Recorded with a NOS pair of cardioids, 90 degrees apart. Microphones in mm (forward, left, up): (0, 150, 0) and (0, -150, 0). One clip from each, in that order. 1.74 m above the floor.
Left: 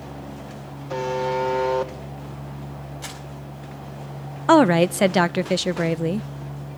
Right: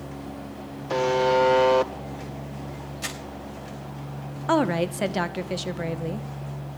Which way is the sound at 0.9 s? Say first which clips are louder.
Right 3 dB; 45° right.